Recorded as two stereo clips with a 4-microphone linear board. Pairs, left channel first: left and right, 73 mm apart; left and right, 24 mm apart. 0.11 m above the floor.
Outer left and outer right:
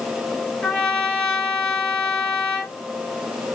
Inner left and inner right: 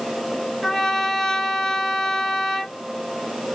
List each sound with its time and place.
0.6 s a trumpet: 10° left (ahead or behind), 1.9 m